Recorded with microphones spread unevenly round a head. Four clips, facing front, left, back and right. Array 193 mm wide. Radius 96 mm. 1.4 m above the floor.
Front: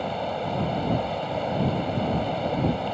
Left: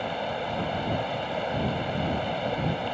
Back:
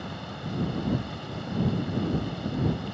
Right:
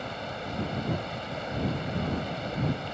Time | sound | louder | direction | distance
0.0 | running water | left 6 dB, front 10 dB | 25° left | ?